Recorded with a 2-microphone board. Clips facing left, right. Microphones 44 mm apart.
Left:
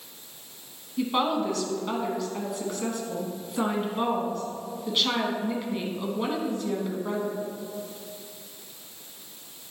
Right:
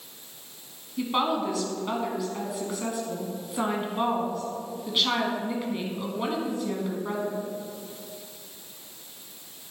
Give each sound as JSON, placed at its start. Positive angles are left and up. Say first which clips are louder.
{"t": 1.0, "sound": "a woman speaking", "louder": "left 1 dB", "side_deg": -5, "distance_m": 1.1}